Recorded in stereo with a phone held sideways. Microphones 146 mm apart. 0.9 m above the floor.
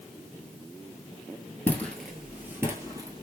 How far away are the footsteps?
About 0.9 m.